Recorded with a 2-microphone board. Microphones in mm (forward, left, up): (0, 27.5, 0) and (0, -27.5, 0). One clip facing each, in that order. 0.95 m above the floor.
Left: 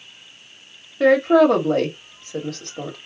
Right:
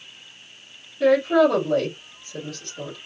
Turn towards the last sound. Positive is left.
turn(degrees=70)  # may be behind; listen again after turning